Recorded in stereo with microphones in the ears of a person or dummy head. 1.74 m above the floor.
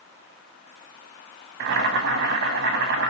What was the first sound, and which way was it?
Boiling, 65° right (ahead or behind).